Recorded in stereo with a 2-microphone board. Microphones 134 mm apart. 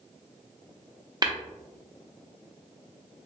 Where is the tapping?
30° right (ahead or behind), 0.5 m.